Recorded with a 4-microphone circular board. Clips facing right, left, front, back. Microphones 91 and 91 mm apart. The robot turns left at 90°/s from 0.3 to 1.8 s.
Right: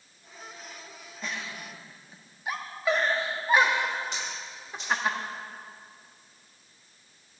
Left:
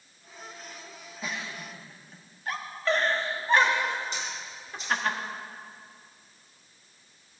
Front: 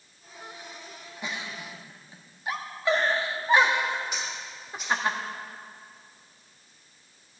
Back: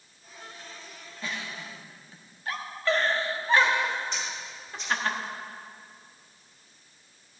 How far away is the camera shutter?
About 4 m.